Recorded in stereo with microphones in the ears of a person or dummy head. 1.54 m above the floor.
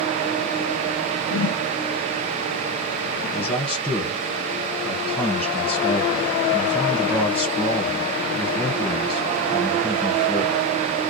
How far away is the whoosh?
About 1.2 m.